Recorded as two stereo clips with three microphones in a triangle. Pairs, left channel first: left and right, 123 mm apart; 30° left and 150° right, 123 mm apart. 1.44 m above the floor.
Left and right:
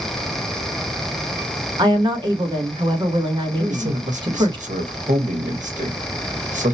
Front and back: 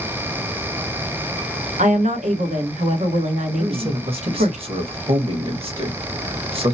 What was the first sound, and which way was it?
A woman speaking, 145° right.